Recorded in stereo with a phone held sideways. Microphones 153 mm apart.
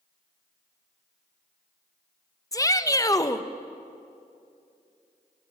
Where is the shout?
20° left (ahead or behind), 1.1 m.